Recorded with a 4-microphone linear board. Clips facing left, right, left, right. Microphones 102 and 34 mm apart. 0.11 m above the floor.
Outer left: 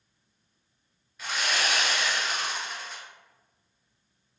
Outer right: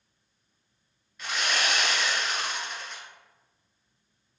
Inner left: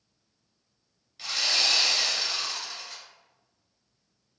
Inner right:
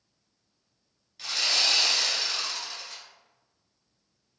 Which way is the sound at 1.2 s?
Centre (ahead or behind).